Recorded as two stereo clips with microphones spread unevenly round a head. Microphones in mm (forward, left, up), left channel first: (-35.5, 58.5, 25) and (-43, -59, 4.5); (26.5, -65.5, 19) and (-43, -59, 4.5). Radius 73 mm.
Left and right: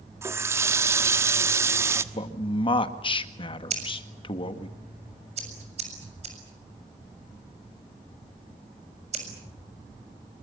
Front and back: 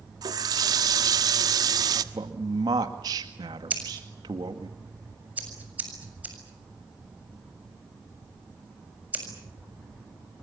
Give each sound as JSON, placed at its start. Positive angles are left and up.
{"t": 0.2, "sound": "a running tap", "azimuth_deg": -165, "distance_m": 1.3}
{"t": 2.1, "sound": "a man speaking", "azimuth_deg": 130, "distance_m": 1.9}
{"t": 3.7, "sound": "scissors", "azimuth_deg": -120, "distance_m": 7.0}